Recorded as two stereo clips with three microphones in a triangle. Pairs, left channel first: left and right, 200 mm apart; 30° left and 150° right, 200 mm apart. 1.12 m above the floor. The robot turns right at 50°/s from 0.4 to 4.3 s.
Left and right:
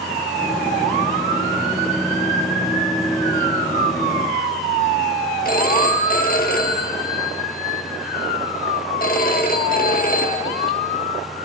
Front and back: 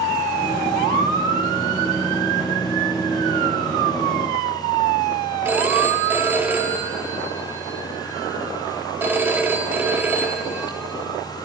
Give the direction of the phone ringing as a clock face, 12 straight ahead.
8 o'clock.